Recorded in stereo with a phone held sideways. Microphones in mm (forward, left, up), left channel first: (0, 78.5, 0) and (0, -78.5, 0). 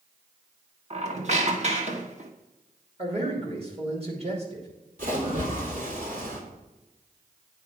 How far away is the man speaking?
About 2.5 m.